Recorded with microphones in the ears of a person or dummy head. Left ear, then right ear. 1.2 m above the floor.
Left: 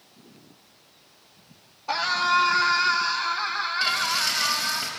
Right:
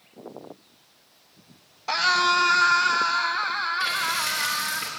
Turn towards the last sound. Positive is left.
turn(degrees=-45)  # may be behind; listen again after turning